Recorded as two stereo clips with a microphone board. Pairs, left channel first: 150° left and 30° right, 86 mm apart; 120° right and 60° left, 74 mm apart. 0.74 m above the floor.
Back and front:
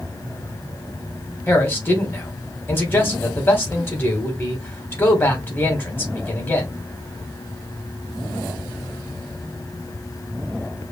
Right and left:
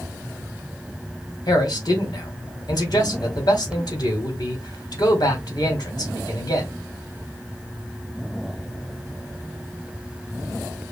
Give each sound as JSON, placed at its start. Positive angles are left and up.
{"t": 1.5, "sound": "a man speaking", "azimuth_deg": -145, "distance_m": 1.8}